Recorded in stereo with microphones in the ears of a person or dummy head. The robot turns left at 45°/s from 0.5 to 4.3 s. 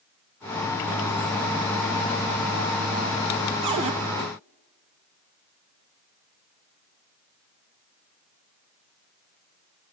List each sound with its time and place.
3.6 s a cupboard door: 25° right (ahead or behind), 0.8 m